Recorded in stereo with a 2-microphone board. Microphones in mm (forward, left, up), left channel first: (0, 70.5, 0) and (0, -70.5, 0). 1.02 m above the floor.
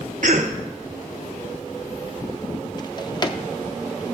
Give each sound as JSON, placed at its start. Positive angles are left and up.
{"t": 0.2, "sound": "a cough", "side_deg": -60, "distance_m": 0.5}
{"t": 2.8, "sound": "a drawer", "side_deg": 30, "distance_m": 0.6}